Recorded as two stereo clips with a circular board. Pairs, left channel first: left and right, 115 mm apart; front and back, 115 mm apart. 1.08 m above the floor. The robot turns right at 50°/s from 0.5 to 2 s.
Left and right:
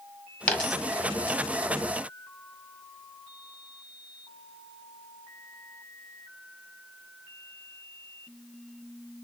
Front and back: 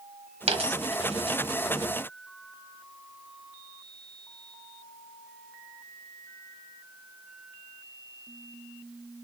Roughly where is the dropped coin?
Behind.